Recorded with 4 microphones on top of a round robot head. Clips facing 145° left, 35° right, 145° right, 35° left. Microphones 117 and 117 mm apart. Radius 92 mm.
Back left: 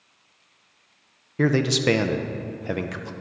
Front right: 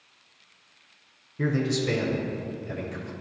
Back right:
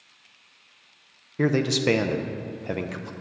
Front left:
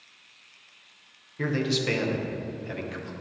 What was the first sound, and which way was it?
A man speaking, 170° left.